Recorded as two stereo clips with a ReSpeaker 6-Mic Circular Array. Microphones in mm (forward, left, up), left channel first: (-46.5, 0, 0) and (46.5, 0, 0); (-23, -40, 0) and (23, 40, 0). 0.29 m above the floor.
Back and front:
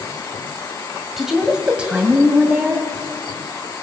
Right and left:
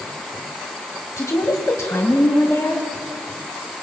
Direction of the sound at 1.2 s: 85° right.